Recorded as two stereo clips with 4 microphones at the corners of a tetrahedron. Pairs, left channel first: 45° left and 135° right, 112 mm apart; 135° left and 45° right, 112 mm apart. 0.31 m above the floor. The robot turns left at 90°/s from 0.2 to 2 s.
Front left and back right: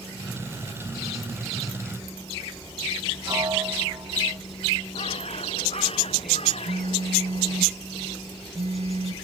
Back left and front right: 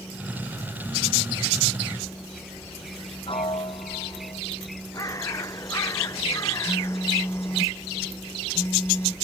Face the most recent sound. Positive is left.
turn(degrees=-155)